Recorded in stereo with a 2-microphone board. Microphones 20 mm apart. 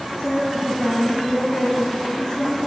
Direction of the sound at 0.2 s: 50° left (ahead or behind).